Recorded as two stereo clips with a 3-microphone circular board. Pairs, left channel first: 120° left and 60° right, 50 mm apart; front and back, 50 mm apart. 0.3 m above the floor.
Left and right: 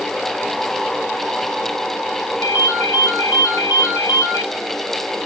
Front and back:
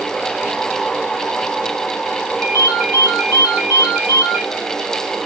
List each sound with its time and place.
2.4 s a ringtone: 120° left, 2.5 m